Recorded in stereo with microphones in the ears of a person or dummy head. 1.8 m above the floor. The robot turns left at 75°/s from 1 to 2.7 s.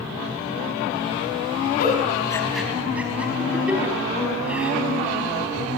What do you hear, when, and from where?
1.8 s a giggle: 55° left (ahead or behind), 4.5 m; by 4.7 s 10° right (ahead or behind), 4.5 m